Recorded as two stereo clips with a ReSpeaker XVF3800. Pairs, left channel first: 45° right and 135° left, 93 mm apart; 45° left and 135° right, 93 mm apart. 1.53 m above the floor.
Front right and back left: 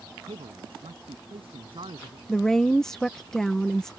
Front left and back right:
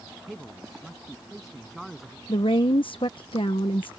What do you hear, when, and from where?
0.3 s a man speaking: 135° left
2.3 s a woman speaking: 40° left